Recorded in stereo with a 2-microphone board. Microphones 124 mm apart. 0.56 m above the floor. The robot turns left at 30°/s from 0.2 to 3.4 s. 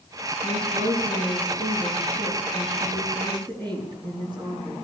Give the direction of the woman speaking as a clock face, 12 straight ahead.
2 o'clock.